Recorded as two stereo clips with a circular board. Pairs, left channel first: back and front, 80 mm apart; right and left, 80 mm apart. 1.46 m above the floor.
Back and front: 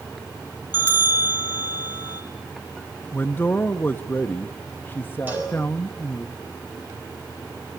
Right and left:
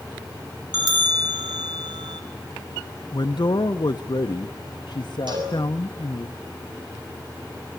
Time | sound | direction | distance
0.7 | a bell | 60° left | 2.5 m
3.1 | a man speaking | 115° right | 1.0 m
5.3 | a cowbell | 65° left | 7.5 m